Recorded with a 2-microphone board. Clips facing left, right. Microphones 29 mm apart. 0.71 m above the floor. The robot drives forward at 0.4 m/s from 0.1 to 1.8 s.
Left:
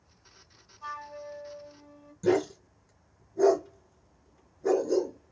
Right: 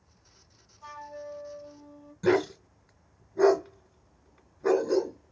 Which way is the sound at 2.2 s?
40° right (ahead or behind).